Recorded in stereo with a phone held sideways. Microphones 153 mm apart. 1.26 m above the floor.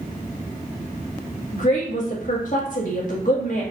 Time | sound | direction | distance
1.5 | a woman speaking | 55° left (ahead or behind) | 1.7 m